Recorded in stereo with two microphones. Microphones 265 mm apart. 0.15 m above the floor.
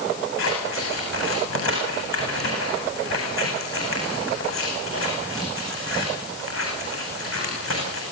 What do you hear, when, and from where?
0.4 s scissors: 50° left (ahead or behind), 9 m